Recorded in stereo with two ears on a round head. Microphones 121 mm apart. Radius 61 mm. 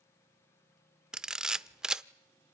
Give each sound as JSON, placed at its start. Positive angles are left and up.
{"t": 1.1, "sound": "a camera shutter", "side_deg": -5, "distance_m": 0.5}